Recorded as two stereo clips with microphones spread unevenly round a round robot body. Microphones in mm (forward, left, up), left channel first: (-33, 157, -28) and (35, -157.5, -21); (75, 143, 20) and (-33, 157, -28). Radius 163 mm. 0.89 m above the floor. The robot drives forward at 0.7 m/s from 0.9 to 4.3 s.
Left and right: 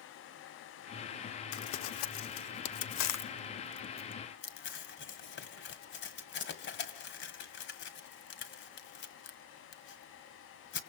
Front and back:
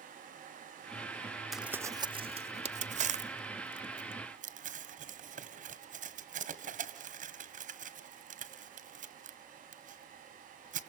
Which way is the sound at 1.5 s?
70° left.